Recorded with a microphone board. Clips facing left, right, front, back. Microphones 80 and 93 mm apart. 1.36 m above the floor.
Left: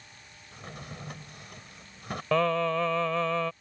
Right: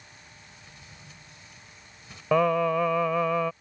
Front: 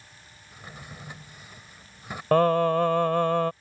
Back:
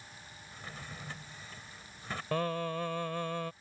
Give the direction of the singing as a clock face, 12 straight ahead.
12 o'clock.